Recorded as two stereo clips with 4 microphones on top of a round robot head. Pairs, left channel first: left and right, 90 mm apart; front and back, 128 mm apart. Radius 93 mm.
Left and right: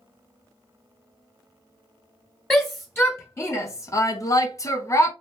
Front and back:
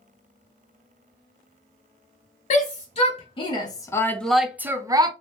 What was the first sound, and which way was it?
A shout, 25° left.